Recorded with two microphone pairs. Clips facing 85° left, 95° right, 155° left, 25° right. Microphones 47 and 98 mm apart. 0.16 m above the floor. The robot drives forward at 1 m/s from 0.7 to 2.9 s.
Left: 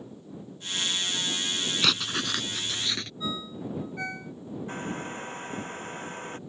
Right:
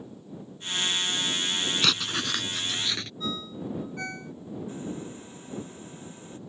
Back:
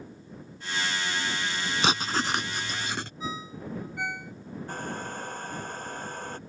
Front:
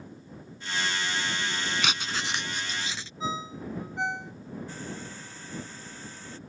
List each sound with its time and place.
1.8 s writing: 170° left; by 3.1 s 175° left
3.2 s a ringtone: 10° left
4.7 s a hair dryer: 115° left